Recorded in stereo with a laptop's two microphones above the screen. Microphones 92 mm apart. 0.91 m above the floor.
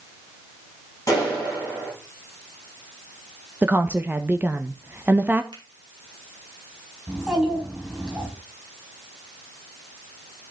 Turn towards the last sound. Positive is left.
turn(degrees=-5)  # may be behind; listen again after turning